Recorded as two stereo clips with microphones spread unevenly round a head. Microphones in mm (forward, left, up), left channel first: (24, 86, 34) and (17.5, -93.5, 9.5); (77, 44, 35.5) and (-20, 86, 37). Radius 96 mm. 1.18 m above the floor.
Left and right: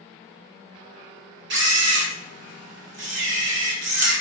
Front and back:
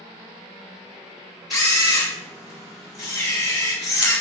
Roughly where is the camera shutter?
Right.